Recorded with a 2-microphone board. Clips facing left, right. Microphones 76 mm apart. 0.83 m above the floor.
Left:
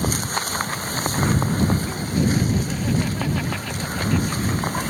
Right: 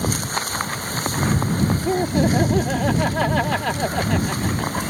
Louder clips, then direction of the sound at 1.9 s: Right 4 dB; 70° right (ahead or behind).